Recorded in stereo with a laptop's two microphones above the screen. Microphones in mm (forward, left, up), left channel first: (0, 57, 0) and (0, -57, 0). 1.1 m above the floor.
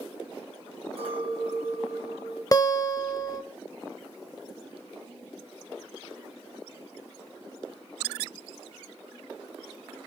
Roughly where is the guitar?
Left.